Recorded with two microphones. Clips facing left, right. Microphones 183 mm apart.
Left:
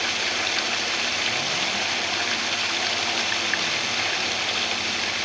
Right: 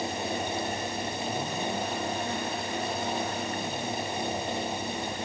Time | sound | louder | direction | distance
0.0 | running water | right 1 dB | 85° left | ?